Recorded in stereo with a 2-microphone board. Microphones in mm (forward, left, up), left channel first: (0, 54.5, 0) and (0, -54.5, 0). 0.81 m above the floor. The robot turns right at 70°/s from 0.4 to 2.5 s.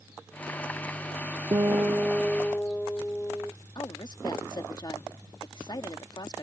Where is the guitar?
55° right; by 3.5 s 15° left.